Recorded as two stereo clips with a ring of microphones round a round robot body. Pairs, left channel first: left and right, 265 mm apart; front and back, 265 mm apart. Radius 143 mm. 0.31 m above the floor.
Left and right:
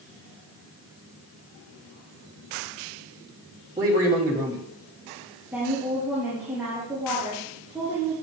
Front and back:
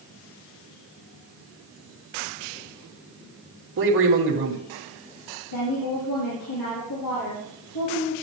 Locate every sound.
3.8 s a man speaking: 165° right, 2 m
5.5 s a woman speaking: 5° right, 7.5 m